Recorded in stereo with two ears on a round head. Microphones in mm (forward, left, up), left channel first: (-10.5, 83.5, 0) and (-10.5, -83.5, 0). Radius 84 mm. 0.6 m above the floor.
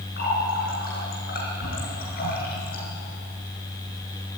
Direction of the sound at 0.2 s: 50° left (ahead or behind).